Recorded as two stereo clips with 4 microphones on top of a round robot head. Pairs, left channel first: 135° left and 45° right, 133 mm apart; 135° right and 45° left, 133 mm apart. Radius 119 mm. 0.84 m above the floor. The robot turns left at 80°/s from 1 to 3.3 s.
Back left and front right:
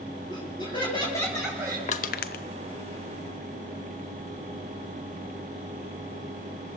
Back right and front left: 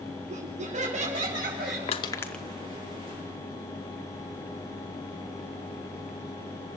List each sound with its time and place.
0.3 s laughter: 80° left, 6 m; by 1.8 s 20° left, 6 m
1.9 s crushing: 175° left, 0.5 m; by 2.4 s 135° left, 0.5 m